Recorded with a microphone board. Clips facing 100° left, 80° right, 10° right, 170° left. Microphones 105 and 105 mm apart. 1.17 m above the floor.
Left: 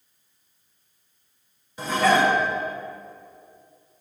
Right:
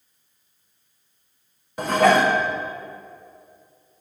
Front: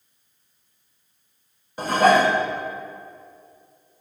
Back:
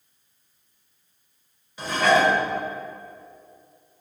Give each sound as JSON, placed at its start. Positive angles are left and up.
{"t": 1.8, "sound": "dishes clattering", "azimuth_deg": -50, "distance_m": 0.6}